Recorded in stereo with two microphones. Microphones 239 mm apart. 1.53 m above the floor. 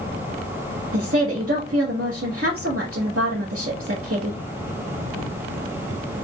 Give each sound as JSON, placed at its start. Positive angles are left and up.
{"t": 0.9, "sound": "a woman speaking", "side_deg": -65, "distance_m": 1.2}